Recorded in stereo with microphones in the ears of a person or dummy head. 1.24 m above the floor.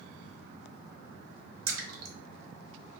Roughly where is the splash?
Right.